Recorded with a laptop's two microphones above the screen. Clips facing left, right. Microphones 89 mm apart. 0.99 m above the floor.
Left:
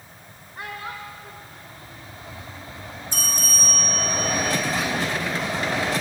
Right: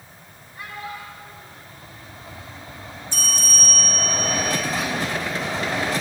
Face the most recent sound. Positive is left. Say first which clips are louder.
# right 1 dB
turn(degrees=45)  # may be behind; listen again after turning